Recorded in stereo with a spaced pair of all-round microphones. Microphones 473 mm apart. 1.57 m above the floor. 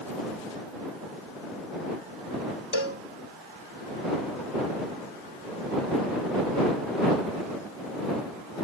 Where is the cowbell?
75° left (ahead or behind).